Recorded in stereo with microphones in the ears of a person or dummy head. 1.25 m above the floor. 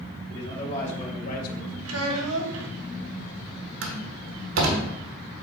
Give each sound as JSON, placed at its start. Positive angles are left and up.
{"t": 0.3, "sound": "a man speaking", "side_deg": 30, "distance_m": 3.0}
{"t": 1.9, "sound": "a child speaking", "side_deg": -80, "distance_m": 1.4}
{"t": 3.8, "sound": "a door slam", "side_deg": -75, "distance_m": 1.3}